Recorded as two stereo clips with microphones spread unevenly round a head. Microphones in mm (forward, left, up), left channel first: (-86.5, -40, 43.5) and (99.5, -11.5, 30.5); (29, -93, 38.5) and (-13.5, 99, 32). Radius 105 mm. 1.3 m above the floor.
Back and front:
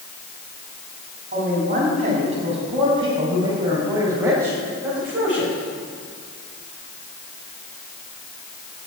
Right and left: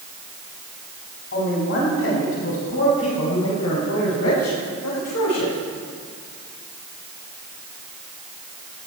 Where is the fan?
No fan in this recording.